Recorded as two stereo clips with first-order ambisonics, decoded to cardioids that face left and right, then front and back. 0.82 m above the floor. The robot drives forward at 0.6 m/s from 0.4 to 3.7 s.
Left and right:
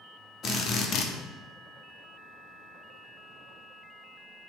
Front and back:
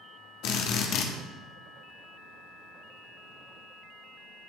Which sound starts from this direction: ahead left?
A drill, at 0.4 s.